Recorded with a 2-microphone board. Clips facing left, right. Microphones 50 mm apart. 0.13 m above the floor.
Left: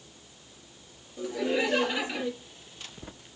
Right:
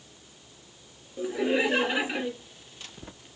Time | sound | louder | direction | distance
1.2 | laughter | right 2 dB | 20° right (ahead or behind) | 2 m